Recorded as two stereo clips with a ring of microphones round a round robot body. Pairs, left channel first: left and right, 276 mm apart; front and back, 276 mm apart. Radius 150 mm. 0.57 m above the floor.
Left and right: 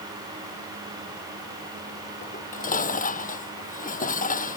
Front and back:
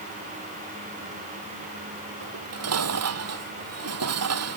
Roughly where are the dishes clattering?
Behind left.